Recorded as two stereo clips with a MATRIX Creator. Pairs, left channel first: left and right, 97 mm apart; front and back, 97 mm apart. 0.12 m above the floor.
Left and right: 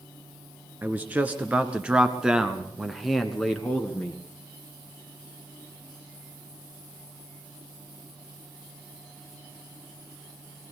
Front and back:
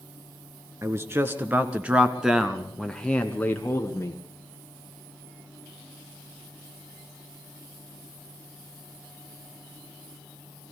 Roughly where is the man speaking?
Behind right.